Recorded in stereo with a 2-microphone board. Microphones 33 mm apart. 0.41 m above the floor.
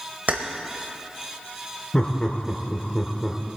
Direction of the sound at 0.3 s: 45° right (ahead or behind).